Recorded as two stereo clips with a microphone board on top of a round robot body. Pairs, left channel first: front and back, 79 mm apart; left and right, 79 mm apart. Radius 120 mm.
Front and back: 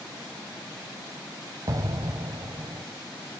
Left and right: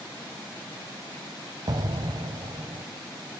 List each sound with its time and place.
1.7 s an explosion: 130° right, 0.9 m